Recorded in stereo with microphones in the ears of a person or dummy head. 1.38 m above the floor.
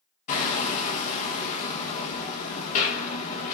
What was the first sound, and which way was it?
Hammering, 45° left (ahead or behind).